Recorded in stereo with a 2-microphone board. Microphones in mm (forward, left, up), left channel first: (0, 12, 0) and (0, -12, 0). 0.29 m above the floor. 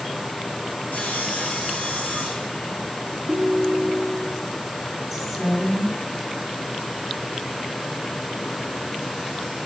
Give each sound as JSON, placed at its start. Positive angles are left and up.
{"t": 0.9, "sound": "sawing", "side_deg": 80, "distance_m": 2.0}
{"t": 3.3, "sound": "a ringtone", "side_deg": -70, "distance_m": 0.8}
{"t": 5.1, "sound": "a woman speaking", "side_deg": 5, "distance_m": 3.0}